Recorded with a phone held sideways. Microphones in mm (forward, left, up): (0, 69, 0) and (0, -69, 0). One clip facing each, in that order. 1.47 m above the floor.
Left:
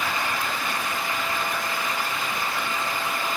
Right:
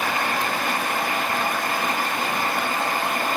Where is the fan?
60° right (ahead or behind), 1.4 m.